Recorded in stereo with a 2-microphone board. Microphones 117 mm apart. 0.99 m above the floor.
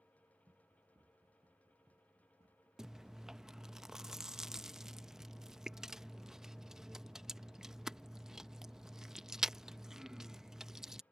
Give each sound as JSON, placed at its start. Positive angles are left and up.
{"t": 0.5, "sound": "running footsteps", "side_deg": -35}
{"t": 2.8, "sound": "chewing", "side_deg": -5}